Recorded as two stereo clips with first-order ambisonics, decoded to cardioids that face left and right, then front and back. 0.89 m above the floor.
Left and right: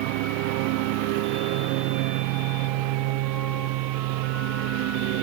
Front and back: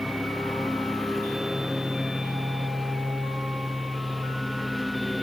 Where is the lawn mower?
85° right.